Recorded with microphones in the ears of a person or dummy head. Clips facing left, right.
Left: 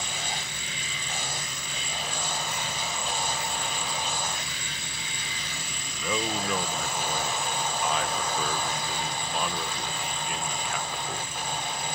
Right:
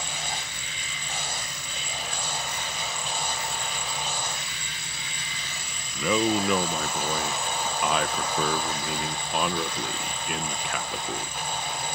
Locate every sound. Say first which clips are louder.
6.0 s a man speaking: right 7 dB; 65° right (ahead or behind)